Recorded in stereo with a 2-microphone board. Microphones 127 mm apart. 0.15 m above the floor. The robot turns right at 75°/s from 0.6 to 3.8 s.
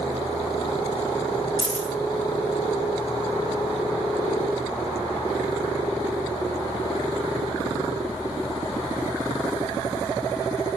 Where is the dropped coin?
35° left (ahead or behind), 1.3 m; by 1.9 s 10° left (ahead or behind), 1.3 m.